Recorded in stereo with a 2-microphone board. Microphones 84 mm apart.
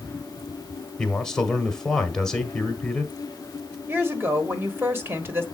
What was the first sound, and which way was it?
A man speaking, 5° left (ahead or behind).